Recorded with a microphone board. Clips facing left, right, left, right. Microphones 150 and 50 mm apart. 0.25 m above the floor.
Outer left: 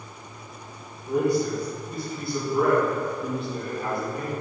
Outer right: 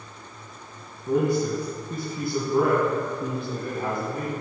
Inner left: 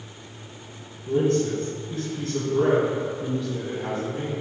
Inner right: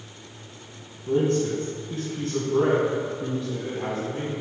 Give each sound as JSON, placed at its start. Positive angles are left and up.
{"t": 1.1, "sound": "a man speaking", "side_deg": -50, "distance_m": 2.0}